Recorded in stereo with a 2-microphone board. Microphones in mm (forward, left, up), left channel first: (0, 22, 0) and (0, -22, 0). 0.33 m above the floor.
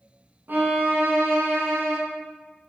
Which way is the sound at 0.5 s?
50° right (ahead or behind).